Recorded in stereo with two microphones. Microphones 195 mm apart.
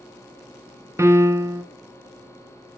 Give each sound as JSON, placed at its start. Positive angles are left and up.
{"t": 1.0, "sound": "a piano", "side_deg": -15, "distance_m": 0.5}